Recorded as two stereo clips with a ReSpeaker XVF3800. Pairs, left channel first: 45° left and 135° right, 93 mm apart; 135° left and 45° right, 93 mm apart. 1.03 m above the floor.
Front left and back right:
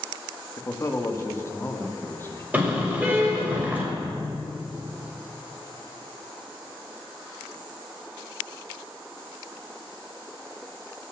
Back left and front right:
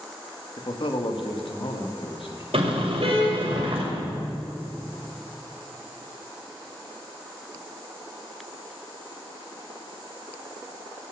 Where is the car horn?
60° right, 3 m.